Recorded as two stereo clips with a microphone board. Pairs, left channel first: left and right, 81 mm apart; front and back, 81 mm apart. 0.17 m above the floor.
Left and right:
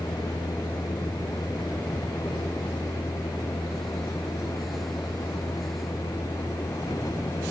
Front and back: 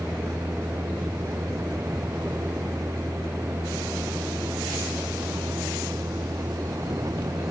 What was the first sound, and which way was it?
A vehicle, 120° left.